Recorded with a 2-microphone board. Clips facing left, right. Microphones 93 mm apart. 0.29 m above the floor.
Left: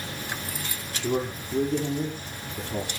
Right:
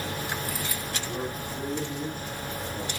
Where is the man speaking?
85° left, 7 m.